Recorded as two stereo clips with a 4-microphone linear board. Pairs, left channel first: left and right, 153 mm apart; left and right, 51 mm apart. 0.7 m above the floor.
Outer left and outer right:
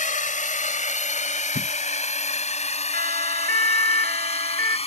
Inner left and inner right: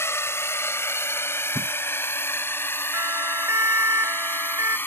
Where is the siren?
65° right (ahead or behind); by 4.8 s 70° right (ahead or behind).